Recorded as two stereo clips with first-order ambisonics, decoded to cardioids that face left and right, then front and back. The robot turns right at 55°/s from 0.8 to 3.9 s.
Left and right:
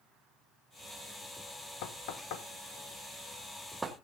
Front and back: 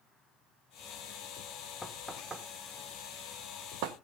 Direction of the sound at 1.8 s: 80° left.